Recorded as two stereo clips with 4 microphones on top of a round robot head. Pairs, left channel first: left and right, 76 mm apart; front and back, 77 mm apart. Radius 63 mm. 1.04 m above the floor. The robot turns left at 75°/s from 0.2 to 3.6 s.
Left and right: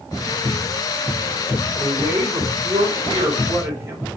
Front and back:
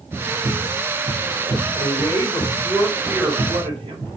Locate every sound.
1.8 s a woman speaking: 10° right, 5.5 m; by 4.1 s 150° right, 5.5 m